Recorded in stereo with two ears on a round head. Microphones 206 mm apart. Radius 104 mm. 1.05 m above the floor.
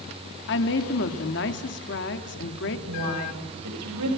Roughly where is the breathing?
No breathing in this recording.